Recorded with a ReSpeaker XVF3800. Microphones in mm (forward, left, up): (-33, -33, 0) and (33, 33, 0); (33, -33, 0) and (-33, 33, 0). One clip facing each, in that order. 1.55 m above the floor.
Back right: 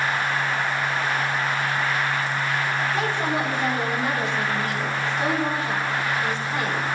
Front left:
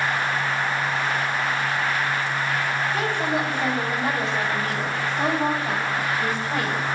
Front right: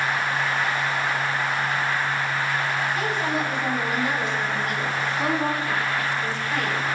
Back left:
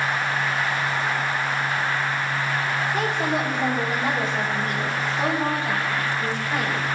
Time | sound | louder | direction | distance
2.9 | a woman speaking | even, back left 1 dB | 125° left | 3.5 m